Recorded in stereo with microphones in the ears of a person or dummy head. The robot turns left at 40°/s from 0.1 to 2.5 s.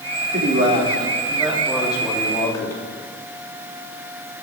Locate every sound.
0.3 s a man speaking: 115° right, 3 m; by 2.8 s 155° left, 3 m